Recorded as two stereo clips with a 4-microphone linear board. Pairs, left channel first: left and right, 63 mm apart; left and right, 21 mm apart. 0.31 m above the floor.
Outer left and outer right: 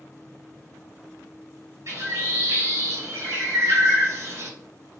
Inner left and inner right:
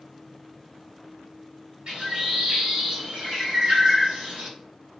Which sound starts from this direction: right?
A bird, at 1.9 s.